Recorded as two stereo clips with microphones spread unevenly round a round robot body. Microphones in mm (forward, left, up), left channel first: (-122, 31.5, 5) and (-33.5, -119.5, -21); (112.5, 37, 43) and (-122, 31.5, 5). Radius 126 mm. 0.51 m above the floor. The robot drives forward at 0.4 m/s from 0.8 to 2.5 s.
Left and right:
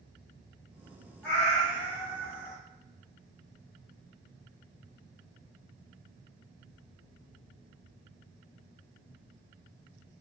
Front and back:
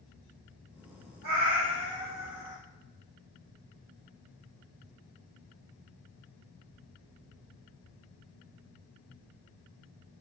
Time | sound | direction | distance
1.2 | a cat meowing | 155° right | 2.0 m